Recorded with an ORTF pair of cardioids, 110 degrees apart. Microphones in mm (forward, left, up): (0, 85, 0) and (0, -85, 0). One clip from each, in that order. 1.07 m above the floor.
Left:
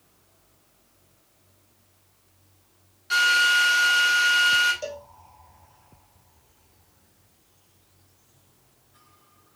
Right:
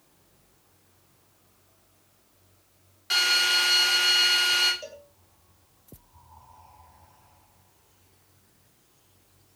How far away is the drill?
About 9 m.